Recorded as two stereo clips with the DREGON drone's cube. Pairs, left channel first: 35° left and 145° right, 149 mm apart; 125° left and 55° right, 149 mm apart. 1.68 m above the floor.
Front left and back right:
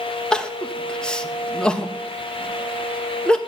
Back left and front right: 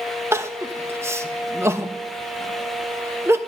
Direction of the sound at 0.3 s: 40° right.